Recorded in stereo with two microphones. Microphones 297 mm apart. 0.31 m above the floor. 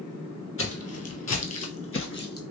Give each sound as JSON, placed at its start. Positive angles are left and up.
{"t": 0.6, "sound": "footsteps", "side_deg": 45, "distance_m": 0.7}